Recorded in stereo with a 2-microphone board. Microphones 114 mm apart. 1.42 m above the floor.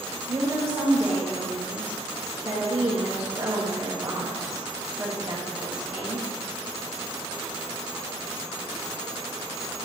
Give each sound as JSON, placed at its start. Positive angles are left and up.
{"t": 0.3, "sound": "a woman speaking", "side_deg": -30, "distance_m": 1.3}